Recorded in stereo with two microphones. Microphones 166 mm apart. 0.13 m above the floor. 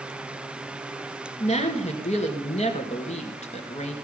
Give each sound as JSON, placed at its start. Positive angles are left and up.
{"t": 1.4, "sound": "a woman speaking", "side_deg": 45, "distance_m": 2.0}